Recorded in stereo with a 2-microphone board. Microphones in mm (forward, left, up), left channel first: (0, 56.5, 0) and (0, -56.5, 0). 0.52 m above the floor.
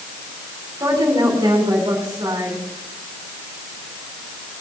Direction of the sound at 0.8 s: 40° right (ahead or behind).